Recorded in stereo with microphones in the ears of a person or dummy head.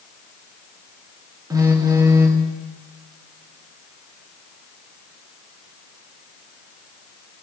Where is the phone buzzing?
20° right (ahead or behind), 1.2 m.